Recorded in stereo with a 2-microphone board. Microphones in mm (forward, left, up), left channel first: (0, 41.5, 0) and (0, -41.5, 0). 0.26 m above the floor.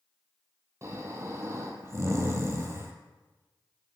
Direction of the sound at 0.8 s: 35° right (ahead or behind).